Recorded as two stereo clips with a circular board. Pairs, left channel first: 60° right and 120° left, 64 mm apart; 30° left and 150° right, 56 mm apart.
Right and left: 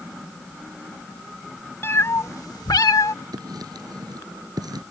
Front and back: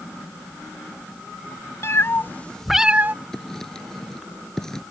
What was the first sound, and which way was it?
A cat meowing, 5° right.